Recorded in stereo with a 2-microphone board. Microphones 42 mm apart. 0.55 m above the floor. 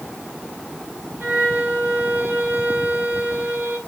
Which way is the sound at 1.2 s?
55° right (ahead or behind).